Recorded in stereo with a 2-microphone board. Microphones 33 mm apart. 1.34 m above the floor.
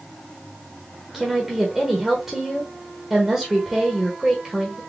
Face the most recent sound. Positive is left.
turn(degrees=-5)  # may be behind; listen again after turning